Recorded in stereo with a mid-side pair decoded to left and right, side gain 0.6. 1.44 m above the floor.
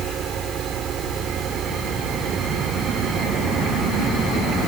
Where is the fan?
45° right.